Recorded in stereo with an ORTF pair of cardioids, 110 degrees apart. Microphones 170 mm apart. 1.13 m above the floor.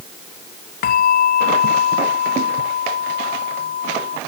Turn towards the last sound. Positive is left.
turn(degrees=65)